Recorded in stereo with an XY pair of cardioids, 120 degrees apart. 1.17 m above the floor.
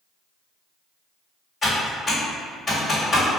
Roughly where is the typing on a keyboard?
Ahead left.